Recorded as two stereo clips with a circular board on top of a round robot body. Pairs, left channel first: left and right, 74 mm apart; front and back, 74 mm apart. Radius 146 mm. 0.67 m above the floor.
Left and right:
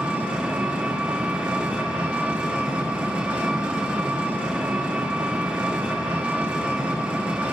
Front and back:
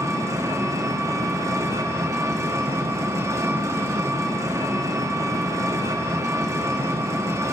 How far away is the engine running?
About 0.9 m.